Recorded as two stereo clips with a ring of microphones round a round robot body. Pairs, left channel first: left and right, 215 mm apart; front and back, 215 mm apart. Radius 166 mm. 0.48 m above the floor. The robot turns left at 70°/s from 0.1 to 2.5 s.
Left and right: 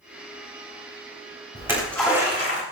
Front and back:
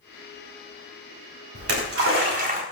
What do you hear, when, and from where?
1.6 s a splash: 160° right, 4 m; by 2.6 s 135° left, 4 m